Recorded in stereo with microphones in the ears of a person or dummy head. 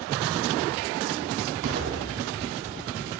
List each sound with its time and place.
1.6 s an explosion: 65° right (ahead or behind), 3.5 m